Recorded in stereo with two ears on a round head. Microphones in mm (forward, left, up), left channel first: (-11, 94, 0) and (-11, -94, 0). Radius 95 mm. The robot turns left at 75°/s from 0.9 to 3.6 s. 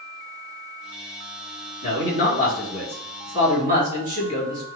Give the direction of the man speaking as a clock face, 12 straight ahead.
9 o'clock.